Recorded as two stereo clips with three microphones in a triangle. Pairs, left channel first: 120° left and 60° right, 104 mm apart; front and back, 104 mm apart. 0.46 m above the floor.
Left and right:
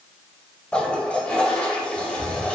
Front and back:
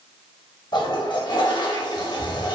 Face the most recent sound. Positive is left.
turn(degrees=40)